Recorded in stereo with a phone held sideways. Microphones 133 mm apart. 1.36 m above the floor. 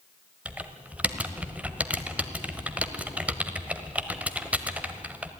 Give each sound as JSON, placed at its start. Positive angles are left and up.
{"t": 0.5, "sound": "typing on a keyboard", "side_deg": -10, "distance_m": 1.4}